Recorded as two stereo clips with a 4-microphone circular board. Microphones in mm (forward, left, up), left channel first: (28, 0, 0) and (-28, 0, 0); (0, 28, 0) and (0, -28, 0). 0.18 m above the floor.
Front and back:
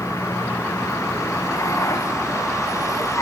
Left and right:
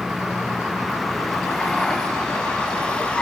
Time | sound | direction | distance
0.0 | a vehicle | 5° right | ?